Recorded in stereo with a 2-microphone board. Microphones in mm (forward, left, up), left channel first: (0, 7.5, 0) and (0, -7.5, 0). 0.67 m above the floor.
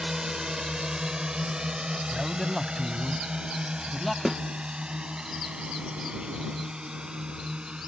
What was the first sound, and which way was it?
A drone, 45° right (ahead or behind).